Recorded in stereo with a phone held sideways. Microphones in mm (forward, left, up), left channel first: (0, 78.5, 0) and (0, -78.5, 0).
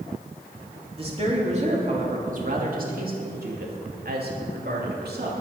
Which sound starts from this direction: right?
A woman speaking, at 1.0 s.